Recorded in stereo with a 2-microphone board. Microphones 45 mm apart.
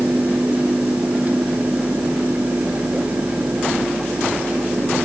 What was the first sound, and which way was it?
Only background noise.